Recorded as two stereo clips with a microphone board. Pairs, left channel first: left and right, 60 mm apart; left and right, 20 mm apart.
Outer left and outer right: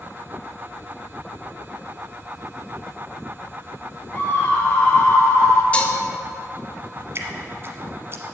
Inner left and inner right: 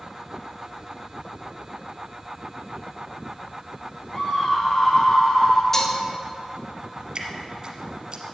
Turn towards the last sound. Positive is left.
turn(degrees=-45)  # may be behind; listen again after turning